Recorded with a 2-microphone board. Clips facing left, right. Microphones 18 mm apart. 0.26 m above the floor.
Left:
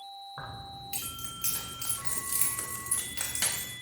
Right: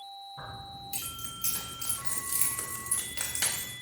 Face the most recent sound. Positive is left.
turn(degrees=-45)  # may be behind; listen again after turning